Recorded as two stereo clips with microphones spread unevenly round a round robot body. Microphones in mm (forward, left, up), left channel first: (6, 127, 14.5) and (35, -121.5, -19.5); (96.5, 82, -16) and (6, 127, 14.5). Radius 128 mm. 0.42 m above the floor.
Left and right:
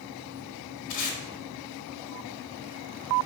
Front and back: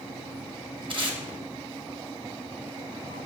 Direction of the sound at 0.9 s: 110° left.